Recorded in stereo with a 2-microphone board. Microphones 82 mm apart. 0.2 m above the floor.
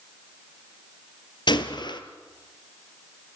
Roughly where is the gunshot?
Left.